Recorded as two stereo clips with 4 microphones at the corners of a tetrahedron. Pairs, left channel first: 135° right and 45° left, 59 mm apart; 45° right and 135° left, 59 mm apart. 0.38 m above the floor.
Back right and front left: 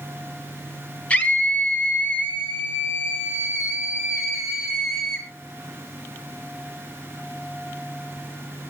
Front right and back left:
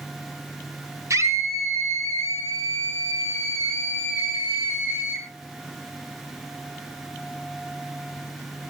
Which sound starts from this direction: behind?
A scream, at 1.1 s.